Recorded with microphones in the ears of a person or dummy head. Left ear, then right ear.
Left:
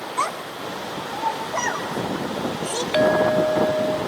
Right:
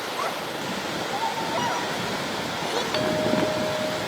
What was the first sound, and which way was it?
A child speaking, 70° left (ahead or behind).